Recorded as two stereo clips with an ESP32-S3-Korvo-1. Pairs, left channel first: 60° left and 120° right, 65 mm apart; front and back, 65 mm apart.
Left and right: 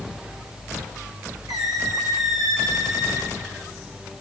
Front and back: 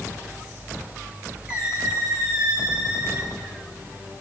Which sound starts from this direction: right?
A squeak, at 1.5 s.